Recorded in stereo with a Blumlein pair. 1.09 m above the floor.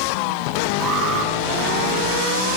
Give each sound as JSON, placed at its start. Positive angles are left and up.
{"t": 0.8, "sound": "an alarm", "azimuth_deg": -25, "distance_m": 6.0}